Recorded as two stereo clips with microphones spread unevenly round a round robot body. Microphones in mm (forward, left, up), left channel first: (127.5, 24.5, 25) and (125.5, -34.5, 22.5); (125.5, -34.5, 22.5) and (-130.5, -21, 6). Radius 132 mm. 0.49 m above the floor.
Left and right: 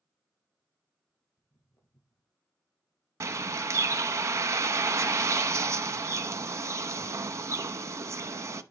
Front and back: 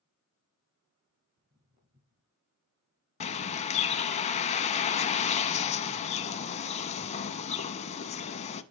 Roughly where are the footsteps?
Left.